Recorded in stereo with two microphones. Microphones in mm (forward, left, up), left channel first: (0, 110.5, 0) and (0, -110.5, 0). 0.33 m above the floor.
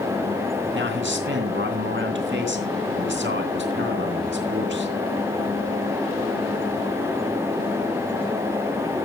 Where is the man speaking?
55° right (ahead or behind), 3 m.